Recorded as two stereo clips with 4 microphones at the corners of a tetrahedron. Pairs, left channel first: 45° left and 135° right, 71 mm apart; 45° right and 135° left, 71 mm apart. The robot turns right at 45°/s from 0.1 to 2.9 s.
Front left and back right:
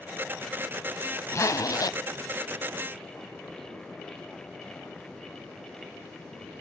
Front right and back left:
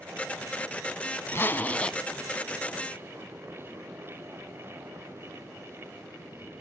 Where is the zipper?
Straight ahead, 0.6 m; by 2.0 s 35° left, 0.6 m.